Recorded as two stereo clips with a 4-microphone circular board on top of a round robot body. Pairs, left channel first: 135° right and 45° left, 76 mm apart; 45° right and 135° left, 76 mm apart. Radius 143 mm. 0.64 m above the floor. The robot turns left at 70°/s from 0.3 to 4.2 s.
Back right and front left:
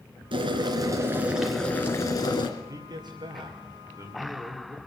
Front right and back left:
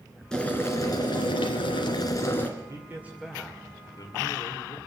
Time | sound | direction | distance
0.3 | boiling | 35° left | 1.9 m
2.6 | a man speaking | 95° left | 2.5 m